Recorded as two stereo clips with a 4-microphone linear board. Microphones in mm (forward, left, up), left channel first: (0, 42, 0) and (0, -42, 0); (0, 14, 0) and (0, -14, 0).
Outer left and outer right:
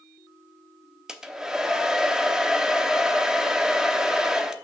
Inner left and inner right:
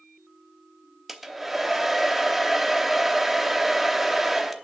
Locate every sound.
1.1 s a hair dryer: 5° right (ahead or behind), 0.8 m